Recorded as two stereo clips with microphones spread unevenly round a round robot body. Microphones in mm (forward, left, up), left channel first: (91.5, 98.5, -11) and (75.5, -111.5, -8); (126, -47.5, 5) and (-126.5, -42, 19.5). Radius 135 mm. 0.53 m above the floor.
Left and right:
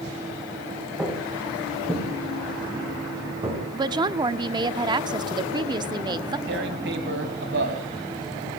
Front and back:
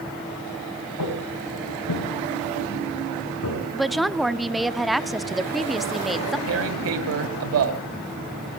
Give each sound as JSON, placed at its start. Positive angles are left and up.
{"t": 1.0, "sound": "footsteps", "azimuth_deg": -10, "distance_m": 7.0}
{"t": 3.7, "sound": "a woman speaking", "azimuth_deg": -80, "distance_m": 0.8}
{"t": 6.5, "sound": "tearing paper", "azimuth_deg": -150, "distance_m": 2.0}